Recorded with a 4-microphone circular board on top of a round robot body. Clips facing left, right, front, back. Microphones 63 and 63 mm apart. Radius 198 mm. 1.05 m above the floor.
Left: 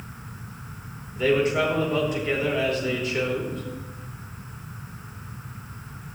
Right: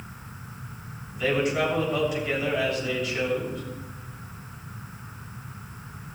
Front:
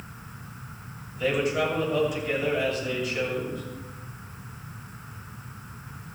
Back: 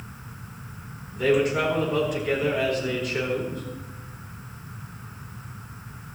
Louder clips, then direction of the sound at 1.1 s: Left 3 dB, back 4 dB; 145° left.